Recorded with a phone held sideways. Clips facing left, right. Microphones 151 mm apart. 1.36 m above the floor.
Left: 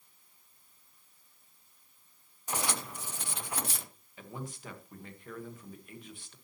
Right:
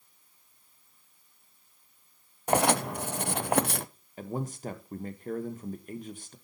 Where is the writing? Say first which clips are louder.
Right 12 dB; 65° right (ahead or behind), 0.6 m.